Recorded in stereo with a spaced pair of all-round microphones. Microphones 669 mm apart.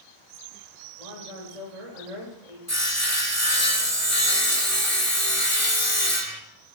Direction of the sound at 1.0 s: 75° right (ahead or behind).